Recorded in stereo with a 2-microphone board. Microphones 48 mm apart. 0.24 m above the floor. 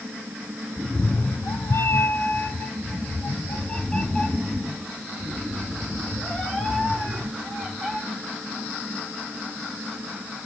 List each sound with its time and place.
0.8 s a cat meowing: 35° left (ahead or behind), 0.8 m; by 8.0 s 10° left (ahead or behind), 4.5 m